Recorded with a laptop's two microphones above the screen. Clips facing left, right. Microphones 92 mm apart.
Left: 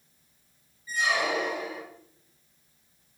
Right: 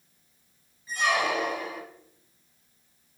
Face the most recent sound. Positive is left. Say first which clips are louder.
# right 2 dB
turn(degrees=-65)  # may be behind; listen again after turning